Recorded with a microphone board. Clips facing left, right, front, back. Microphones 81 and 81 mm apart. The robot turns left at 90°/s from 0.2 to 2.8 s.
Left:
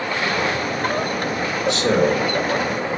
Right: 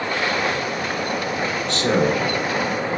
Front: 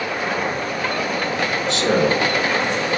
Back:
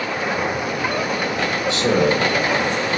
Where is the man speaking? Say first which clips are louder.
Left 2 dB, back 1 dB; 20° left, 1.2 m; by 2.2 s 30° right, 1.2 m.